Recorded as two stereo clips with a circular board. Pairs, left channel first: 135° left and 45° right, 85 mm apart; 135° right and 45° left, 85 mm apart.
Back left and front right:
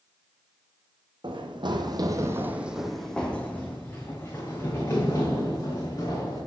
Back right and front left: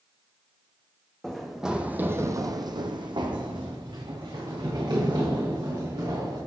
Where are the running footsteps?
50° right, 1.2 m; by 6.4 s 85° left, 3.5 m.